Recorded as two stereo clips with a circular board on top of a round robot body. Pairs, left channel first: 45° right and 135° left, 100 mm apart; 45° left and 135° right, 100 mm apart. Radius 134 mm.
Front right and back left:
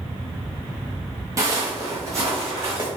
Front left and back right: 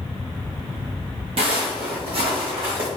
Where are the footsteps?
165° right, 0.8 m; by 2.9 s 160° right, 1.8 m.